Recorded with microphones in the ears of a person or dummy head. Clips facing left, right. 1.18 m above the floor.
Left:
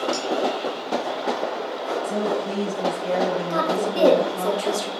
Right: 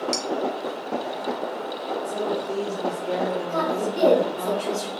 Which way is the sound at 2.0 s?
60° left (ahead or behind).